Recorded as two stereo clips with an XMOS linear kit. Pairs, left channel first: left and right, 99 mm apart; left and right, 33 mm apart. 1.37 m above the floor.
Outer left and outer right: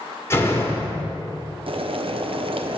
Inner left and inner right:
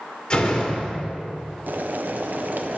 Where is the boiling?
65° right (ahead or behind), 0.6 m.